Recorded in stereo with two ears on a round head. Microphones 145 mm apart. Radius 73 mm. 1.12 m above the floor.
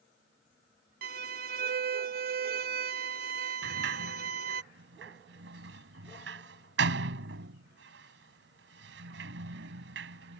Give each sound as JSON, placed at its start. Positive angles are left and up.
{"t": 1.0, "sound": "a violin", "side_deg": -60}
{"t": 3.6, "sound": "a sliding door", "side_deg": -80}